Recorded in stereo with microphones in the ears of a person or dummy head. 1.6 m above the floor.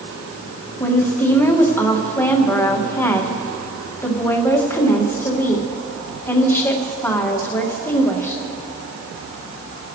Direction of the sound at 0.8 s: 15° left (ahead or behind).